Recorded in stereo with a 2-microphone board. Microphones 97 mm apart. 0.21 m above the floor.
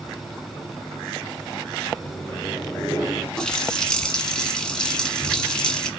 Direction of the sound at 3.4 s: 10° left (ahead or behind).